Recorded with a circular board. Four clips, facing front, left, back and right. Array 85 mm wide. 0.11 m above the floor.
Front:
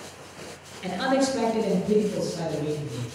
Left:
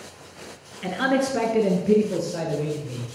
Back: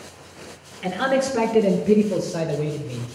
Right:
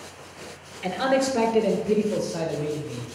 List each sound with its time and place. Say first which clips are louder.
0.8 s a man speaking: even, back 2 dB; 140° left, 1.7 m; by 3.1 s 160° left, 3 m